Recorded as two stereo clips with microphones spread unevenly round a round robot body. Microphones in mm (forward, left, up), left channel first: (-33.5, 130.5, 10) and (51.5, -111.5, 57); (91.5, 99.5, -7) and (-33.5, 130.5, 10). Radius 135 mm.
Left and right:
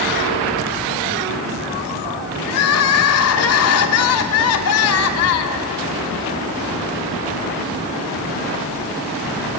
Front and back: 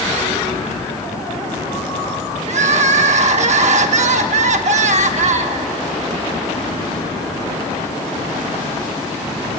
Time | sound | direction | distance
2.5 | crying | 140° left | 1.2 m